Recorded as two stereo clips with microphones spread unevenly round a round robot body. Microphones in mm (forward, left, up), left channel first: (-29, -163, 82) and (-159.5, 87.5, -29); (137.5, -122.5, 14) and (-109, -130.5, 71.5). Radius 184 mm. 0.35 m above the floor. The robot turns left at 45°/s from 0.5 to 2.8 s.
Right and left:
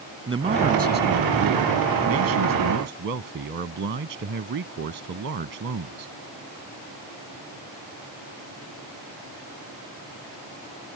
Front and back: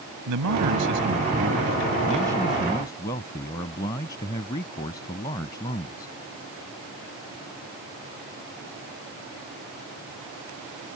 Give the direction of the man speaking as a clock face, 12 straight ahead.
6 o'clock.